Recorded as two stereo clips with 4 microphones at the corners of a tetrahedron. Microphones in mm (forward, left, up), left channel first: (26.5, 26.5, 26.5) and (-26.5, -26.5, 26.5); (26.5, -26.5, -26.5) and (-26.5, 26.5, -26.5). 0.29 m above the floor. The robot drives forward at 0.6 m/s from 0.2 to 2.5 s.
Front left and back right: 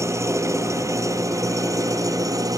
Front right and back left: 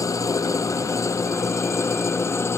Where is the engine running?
85° right; by 2.6 s 95° right.